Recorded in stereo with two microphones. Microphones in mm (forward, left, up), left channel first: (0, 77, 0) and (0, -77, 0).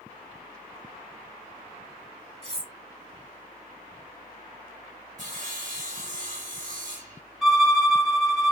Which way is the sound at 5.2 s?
55° right (ahead or behind).